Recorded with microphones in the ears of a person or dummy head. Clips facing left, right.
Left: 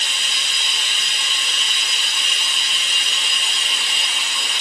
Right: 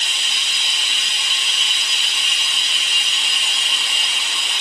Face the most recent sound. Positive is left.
turn(degrees=40)  # may be behind; listen again after turning